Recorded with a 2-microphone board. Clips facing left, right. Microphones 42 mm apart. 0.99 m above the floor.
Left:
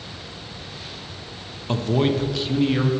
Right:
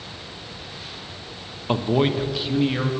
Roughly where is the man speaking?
Centre.